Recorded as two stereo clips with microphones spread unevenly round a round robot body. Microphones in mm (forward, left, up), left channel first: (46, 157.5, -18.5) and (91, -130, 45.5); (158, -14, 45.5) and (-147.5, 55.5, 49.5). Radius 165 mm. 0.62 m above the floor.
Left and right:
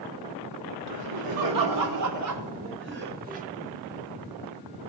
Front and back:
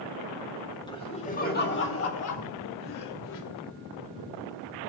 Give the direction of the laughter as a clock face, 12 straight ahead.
3 o'clock.